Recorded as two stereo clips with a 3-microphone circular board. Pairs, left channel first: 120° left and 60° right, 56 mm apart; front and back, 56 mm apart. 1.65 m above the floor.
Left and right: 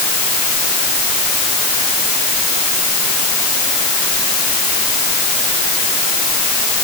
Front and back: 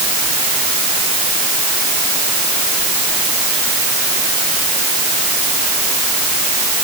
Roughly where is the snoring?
I don't hear snoring.